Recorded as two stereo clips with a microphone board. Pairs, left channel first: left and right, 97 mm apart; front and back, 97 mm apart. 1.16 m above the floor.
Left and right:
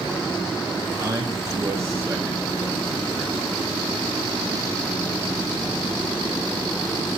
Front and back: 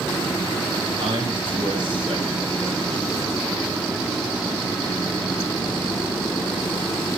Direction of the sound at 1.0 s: 145° right.